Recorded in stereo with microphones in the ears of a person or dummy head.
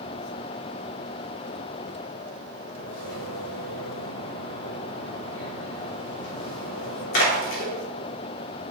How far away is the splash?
About 3.5 m.